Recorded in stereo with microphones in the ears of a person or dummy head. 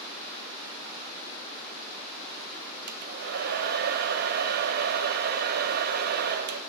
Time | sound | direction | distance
2.9 | a hair dryer | 50° right (ahead or behind) | 1.0 m